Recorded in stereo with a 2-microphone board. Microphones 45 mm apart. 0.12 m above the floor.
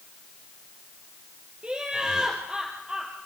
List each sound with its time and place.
1.6 s laughter: 25° right (ahead or behind), 2.5 m